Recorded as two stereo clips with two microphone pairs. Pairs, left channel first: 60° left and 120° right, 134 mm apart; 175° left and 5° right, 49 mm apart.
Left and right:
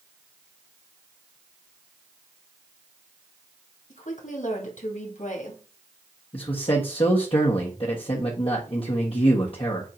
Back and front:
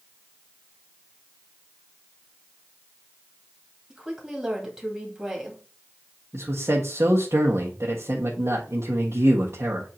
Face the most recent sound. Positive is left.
turn(degrees=15)